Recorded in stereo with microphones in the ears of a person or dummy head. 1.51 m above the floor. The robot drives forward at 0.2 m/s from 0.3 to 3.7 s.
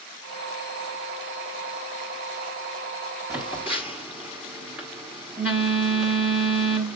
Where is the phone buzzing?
5° right (ahead or behind), 1.3 m.